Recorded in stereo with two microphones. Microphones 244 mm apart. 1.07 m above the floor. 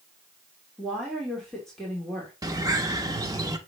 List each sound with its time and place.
0.8 s a woman speaking: centre (ahead or behind), 3 m
2.4 s a bird: 15° right (ahead or behind), 1.2 m